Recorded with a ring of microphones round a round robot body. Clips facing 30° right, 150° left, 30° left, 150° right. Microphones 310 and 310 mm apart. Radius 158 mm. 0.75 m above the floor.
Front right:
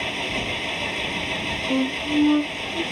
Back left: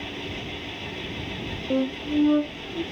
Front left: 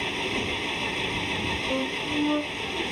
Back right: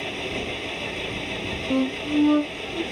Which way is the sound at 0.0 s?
50° right.